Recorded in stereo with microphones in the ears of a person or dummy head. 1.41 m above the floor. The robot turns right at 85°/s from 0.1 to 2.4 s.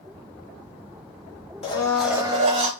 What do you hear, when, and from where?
1.6 s a blender: 145° left, 0.6 m; by 2.7 s 150° right, 0.6 m